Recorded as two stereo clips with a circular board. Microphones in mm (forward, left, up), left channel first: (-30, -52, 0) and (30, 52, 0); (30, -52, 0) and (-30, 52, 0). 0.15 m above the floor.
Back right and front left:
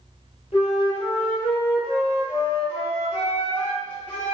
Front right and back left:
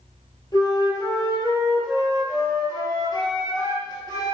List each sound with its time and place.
0.5 s a flute: 110° right, 1.2 m